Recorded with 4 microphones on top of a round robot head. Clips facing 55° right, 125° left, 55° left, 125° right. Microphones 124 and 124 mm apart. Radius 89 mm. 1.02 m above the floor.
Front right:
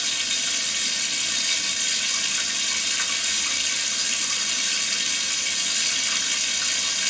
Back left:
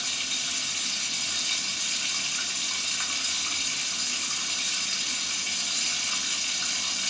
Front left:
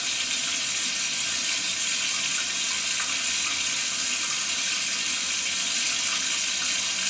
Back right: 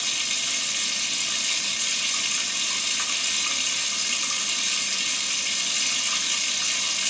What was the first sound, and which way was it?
Running water, 65° right.